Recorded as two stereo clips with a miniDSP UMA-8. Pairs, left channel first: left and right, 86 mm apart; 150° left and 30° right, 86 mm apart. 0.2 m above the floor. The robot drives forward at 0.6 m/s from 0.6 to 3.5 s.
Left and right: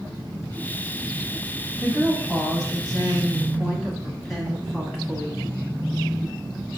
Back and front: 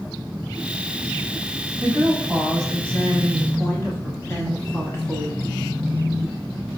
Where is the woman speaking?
5° left, 1.0 m; by 5.4 s 175° left, 1.1 m.